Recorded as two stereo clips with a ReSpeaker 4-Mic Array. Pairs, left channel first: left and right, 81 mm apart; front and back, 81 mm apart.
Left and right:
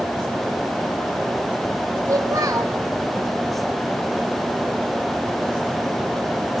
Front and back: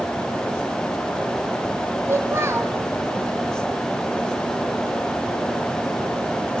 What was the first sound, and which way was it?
A child speaking, 130° right.